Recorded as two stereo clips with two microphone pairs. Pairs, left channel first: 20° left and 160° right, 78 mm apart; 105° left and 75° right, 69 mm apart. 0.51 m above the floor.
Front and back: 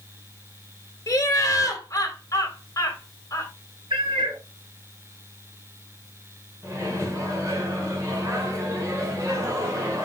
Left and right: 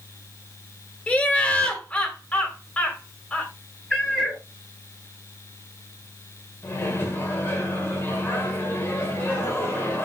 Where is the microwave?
155° left, 1.5 m.